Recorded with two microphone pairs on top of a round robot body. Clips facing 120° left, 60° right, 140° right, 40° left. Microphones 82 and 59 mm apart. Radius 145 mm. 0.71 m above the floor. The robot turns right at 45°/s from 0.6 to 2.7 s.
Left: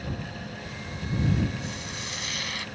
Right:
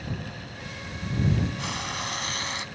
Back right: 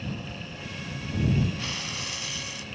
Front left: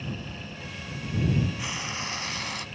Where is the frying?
35° right; by 2.6 s 15° left.